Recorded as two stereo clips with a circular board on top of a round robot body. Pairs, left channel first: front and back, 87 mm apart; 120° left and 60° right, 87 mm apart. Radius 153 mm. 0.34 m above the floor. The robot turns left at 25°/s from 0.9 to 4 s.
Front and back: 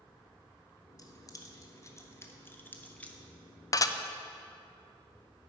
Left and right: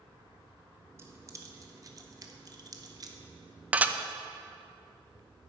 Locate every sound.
1.0 s keys jangling: 15° right, 1.0 m; by 3.2 s 70° right, 1.0 m
3.7 s dishes clattering: 5° left, 0.5 m; by 4.0 s straight ahead, 0.5 m